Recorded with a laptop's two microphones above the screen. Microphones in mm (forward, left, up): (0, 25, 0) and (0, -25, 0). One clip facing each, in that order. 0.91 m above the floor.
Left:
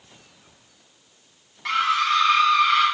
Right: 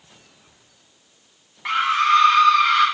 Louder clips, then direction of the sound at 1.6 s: Right 3 dB; 20° right (ahead or behind).